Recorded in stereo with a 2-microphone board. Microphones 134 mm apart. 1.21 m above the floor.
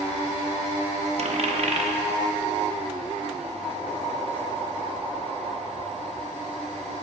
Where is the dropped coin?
50° right (ahead or behind), 0.8 m.